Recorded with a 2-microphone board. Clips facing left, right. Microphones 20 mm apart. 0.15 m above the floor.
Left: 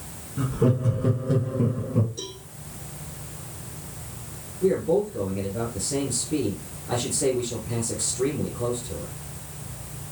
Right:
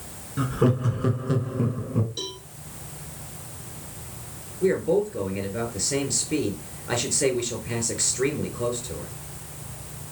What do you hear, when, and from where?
0.4 s laughter: 45° right (ahead or behind), 1.6 m; by 2.1 s 5° right (ahead or behind), 1.1 m
2.2 s a cowbell: 75° right (ahead or behind), 3.5 m
4.6 s a man speaking: 50° right (ahead or behind), 4 m